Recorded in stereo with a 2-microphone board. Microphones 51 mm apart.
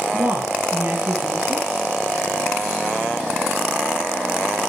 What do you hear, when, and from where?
0.1 s a woman speaking: 40° right (ahead or behind), 6 m